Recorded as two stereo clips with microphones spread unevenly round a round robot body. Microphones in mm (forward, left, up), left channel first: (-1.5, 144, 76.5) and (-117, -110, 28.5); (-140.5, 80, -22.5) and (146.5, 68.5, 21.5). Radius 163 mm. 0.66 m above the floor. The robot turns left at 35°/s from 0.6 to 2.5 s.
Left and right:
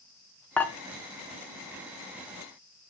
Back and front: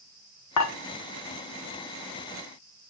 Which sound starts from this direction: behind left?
Dishes clattering, at 0.6 s.